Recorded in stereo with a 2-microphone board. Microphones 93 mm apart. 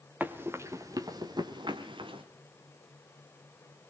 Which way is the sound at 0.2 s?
20° right (ahead or behind).